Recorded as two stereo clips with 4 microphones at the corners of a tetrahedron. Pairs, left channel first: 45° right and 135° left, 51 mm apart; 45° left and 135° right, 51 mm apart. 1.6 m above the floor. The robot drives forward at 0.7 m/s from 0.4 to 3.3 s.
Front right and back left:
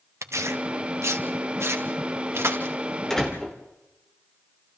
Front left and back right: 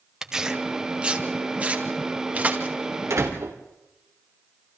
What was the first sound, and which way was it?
Tearing paper, 145° left.